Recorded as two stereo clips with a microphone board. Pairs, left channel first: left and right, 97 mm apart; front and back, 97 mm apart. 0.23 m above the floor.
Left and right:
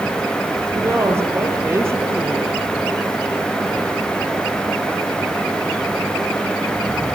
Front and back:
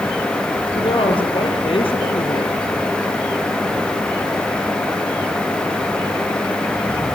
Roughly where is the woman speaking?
Ahead right.